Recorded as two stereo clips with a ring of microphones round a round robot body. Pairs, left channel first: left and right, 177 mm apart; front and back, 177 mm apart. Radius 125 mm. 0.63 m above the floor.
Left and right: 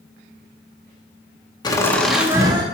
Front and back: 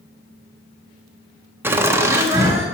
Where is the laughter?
120° left, 0.7 m; by 2.6 s 120° right, 0.7 m.